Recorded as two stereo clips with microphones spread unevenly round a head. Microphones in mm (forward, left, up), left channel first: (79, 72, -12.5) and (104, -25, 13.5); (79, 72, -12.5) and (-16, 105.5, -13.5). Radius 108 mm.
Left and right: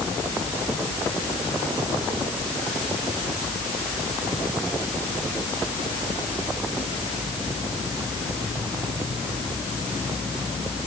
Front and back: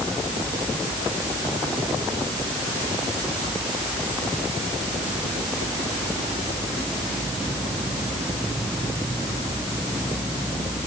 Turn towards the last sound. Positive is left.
No sound to turn to.